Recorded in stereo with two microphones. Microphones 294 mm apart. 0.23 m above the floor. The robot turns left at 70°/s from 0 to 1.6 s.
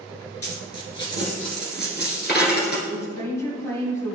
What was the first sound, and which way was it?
A dropped coin, 55° left (ahead or behind).